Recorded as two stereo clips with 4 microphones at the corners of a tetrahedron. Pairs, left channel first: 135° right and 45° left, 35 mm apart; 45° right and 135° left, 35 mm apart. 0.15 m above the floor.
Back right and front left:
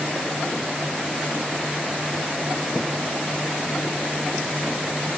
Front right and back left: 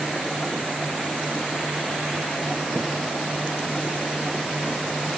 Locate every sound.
Only background noise.